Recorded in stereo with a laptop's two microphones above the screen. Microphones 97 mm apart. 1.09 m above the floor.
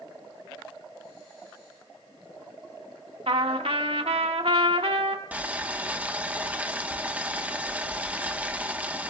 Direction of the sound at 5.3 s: 15° right (ahead or behind).